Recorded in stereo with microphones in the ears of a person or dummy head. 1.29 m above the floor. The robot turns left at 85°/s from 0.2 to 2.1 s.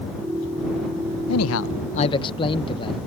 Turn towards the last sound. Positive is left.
turn(degrees=25)